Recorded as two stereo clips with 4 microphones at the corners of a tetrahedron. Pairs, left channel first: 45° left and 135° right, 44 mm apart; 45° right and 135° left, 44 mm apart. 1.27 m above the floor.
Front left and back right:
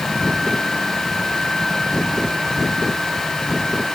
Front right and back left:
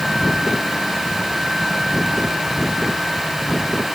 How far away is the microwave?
No microwave in this recording.